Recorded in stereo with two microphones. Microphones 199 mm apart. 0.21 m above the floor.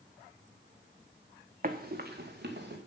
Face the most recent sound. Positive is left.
turn(degrees=-60)  # may be behind; listen again after turning